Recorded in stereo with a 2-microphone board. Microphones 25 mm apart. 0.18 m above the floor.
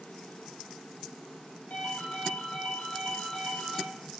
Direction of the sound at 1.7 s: 75° left (ahead or behind).